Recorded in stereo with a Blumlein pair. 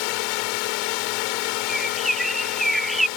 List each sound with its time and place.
0.0 s a drone: 45° left
1.7 s a bird: straight ahead